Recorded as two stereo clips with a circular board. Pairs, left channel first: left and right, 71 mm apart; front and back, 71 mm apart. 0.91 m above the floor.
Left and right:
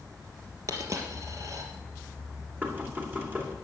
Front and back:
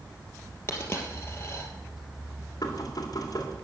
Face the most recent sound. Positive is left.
turn(degrees=-30)